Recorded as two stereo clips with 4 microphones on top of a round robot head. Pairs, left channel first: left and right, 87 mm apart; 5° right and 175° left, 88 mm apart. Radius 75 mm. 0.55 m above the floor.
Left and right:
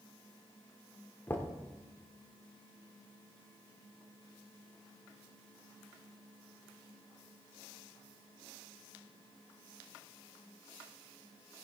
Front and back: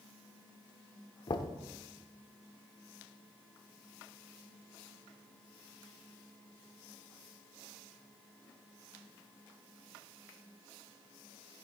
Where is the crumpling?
No crumpling in this recording.